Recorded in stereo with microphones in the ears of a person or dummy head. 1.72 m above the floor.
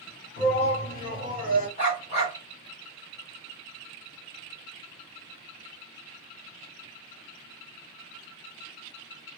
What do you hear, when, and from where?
0.4 s a shout: 60° left (ahead or behind), 1.5 m
1.8 s a dog barking: 35° left (ahead or behind), 1.7 m